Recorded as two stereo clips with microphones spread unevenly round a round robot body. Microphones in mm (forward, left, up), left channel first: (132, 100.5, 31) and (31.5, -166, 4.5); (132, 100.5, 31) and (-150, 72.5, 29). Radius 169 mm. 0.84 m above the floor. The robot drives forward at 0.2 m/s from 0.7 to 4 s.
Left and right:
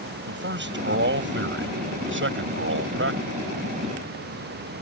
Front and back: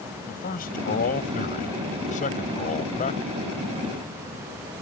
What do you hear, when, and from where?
0.3 s a man speaking: 60° right; by 3.2 s 65° right